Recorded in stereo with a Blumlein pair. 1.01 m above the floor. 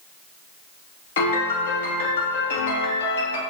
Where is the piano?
55° left, 0.9 m.